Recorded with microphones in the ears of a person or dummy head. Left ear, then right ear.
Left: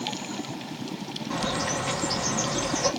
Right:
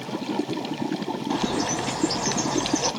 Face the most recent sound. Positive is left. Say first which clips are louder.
# right 1 dB
turn(degrees=-5)  # may be behind; listen again after turning